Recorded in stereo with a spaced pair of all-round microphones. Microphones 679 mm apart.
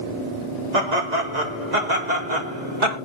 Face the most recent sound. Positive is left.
turn(degrees=-85)